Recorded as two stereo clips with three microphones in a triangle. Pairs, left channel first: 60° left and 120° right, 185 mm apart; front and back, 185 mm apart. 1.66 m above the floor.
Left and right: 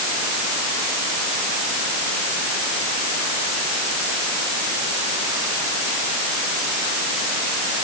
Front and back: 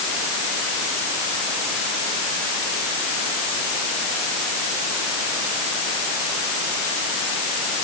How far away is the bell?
No bell in this recording.